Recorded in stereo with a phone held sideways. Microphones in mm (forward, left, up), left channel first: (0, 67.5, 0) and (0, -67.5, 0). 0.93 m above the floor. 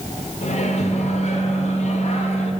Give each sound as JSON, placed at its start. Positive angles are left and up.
{"t": 0.4, "sound": "a microwave", "side_deg": 55, "distance_m": 1.2}